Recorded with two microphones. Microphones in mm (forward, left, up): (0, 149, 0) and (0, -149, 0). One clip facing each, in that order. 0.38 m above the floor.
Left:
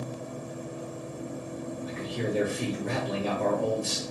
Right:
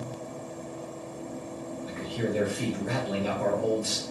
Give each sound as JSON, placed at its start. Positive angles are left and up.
{"t": 1.9, "sound": "a man speaking", "side_deg": -5, "distance_m": 1.2}